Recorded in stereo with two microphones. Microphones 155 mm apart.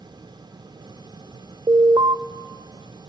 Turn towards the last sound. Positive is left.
turn(degrees=-35)  # may be behind; listen again after turning